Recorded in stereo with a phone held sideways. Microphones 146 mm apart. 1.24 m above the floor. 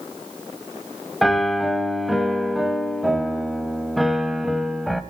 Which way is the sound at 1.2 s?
Centre (ahead or behind).